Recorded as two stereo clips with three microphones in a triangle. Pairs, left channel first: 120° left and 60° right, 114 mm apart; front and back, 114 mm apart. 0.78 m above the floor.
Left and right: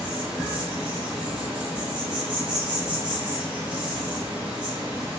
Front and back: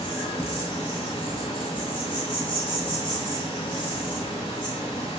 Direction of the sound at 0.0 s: 15° left.